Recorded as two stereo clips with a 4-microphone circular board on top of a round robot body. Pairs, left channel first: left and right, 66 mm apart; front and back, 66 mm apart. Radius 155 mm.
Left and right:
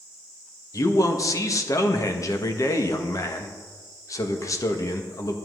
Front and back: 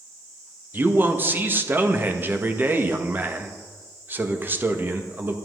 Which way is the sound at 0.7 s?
125° left.